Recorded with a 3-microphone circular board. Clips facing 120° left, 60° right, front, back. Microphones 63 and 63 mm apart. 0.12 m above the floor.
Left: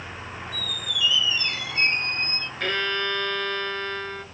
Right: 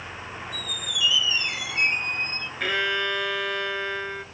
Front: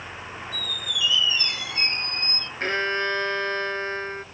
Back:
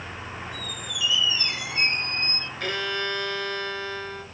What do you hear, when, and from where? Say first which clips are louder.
0.5 s a squeak: left 2 dB, front 2 dB; 135° right, 1.1 m
2.6 s a violin: right 1 dB, front 5 dB; 20° left, 1.0 m